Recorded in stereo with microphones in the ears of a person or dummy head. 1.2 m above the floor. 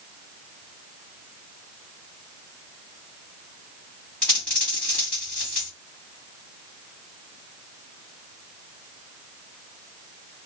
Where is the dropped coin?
5° left (ahead or behind), 2.5 m.